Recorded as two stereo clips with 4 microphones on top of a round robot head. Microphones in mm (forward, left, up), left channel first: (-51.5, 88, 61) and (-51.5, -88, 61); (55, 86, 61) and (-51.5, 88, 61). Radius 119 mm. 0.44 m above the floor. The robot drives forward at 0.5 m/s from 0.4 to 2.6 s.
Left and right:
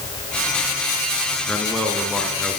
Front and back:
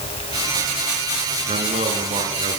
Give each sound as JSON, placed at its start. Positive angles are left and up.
{"t": 1.5, "sound": "a man speaking", "azimuth_deg": 175, "distance_m": 7.0}